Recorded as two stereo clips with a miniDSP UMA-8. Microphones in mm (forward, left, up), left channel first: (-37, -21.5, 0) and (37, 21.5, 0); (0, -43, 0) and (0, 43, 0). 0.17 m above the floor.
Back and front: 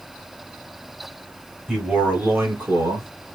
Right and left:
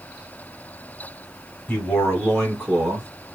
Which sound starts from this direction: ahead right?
A man speaking, at 1.7 s.